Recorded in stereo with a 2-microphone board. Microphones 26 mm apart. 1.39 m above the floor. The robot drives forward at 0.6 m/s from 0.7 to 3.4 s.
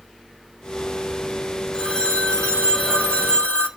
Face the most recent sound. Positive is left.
turn(degrees=60)  # may be behind; listen again after turning